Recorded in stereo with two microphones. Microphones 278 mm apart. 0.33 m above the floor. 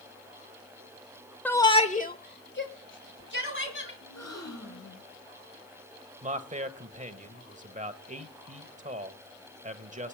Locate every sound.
1.4 s a shout: 5° left (ahead or behind), 1.0 m; by 3.9 s 45° left (ahead or behind), 2.5 m
4.0 s a gasp: 70° left (ahead or behind), 2.5 m
6.2 s a man speaking: 25° right (ahead or behind), 1.2 m